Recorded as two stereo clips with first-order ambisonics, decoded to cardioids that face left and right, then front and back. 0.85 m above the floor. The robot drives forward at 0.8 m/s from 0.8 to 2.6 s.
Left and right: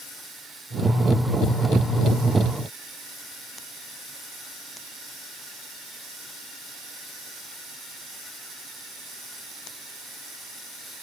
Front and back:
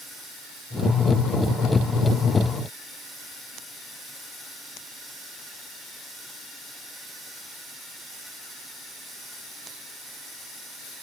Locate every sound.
Only background noise.